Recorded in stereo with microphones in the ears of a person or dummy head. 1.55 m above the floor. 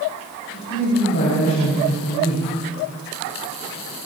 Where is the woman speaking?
55° left (ahead or behind), 8.5 m.